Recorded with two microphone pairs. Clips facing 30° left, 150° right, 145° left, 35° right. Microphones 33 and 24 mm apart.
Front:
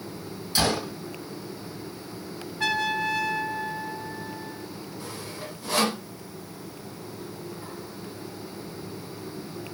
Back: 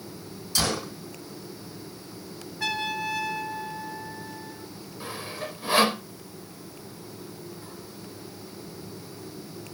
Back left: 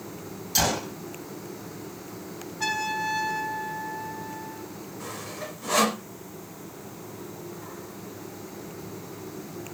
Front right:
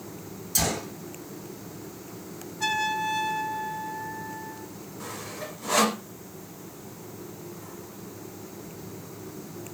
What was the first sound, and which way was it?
A gunshot, 90° left.